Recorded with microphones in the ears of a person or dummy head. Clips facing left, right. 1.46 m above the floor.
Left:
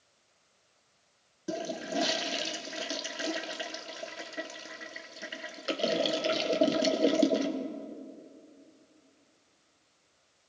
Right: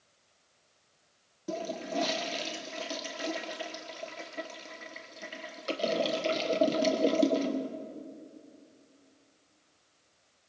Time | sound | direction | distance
1.5 | a toilet flushing | 5° left (ahead or behind) | 1.4 m